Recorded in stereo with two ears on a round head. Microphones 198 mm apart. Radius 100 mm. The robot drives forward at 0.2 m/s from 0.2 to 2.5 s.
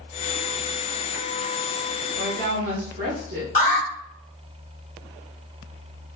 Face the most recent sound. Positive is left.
turn(degrees=35)  # may be behind; listen again after turning